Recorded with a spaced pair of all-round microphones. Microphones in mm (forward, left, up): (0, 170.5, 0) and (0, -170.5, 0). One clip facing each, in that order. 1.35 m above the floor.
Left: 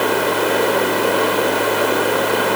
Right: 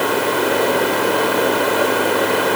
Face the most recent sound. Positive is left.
No sound to turn to.